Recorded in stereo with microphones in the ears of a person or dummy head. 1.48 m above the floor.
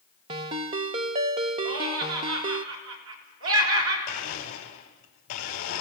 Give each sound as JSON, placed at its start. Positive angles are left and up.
{"t": 0.3, "sound": "a ringtone", "side_deg": -20, "distance_m": 0.6}
{"t": 1.6, "sound": "laughter", "side_deg": -85, "distance_m": 6.5}
{"t": 4.1, "sound": "a blender", "side_deg": 45, "distance_m": 3.5}